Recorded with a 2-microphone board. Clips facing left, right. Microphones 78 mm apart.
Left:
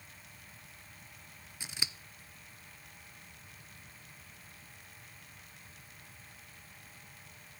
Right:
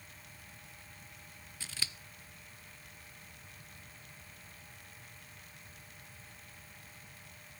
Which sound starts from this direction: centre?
Scissors, at 1.6 s.